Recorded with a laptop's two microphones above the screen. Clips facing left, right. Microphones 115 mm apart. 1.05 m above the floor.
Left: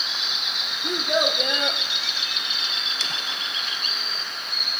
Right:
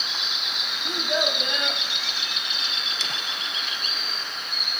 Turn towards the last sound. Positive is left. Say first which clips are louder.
# left 3 dB
turn(degrees=85)